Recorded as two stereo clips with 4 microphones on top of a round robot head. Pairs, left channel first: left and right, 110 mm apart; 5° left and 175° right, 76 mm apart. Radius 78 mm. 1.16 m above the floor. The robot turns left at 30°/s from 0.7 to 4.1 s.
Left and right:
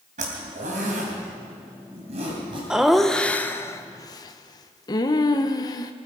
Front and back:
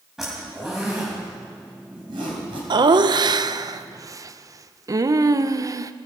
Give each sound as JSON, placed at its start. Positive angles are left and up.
{"t": 0.2, "sound": "a zipper", "azimuth_deg": -90, "distance_m": 3.0}
{"t": 2.7, "sound": "laughter", "azimuth_deg": -175, "distance_m": 0.8}